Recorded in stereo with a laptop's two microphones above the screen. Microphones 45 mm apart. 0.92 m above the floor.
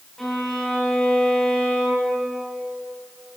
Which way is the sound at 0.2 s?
10° left (ahead or behind).